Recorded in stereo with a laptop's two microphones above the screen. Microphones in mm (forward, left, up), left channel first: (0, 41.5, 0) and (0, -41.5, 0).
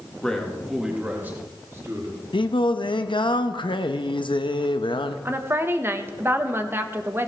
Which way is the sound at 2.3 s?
75° left (ahead or behind).